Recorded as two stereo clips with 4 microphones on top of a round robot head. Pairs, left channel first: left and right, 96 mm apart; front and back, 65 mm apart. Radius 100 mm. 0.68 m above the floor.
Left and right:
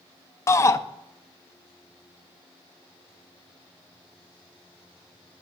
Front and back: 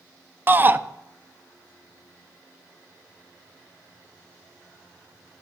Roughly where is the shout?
Behind left.